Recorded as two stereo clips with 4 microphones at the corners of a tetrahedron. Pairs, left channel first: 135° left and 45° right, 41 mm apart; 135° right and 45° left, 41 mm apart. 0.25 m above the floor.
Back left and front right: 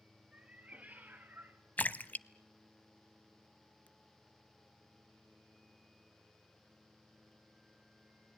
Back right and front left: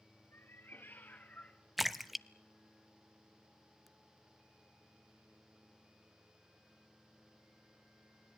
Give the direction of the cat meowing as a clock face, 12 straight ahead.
4 o'clock.